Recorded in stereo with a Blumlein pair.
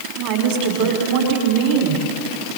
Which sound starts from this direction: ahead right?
A woman speaking, at 0.2 s.